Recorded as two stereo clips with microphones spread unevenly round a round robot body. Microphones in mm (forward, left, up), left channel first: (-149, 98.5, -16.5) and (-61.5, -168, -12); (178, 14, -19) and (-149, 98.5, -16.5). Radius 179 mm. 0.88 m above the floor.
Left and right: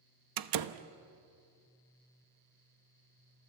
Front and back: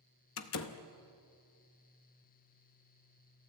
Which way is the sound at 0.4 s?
70° right.